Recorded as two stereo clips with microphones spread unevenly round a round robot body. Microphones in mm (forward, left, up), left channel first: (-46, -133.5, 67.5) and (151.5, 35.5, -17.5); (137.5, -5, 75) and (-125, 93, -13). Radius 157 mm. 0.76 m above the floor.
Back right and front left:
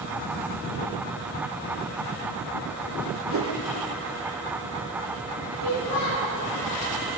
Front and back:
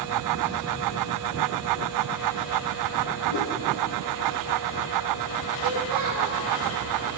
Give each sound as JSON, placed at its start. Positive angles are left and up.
{"t": 3.3, "sound": "a whoosh", "azimuth_deg": 5, "distance_m": 2.0}
{"t": 5.6, "sound": "a child speaking", "azimuth_deg": -165, "distance_m": 9.0}